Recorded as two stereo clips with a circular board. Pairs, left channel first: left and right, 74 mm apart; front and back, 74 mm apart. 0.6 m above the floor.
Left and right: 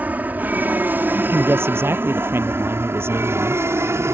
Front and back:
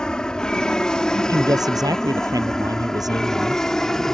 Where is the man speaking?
145° right.